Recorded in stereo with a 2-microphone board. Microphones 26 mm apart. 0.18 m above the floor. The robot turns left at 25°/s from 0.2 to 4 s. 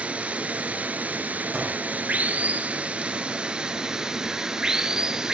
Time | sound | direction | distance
0.0 | running water | 55° right | 0.8 m
1.5 | a gunshot | 20° right (ahead or behind) | 3 m